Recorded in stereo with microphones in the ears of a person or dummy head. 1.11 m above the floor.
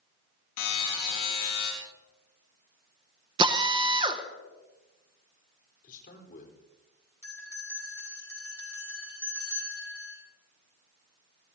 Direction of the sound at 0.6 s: 80° left.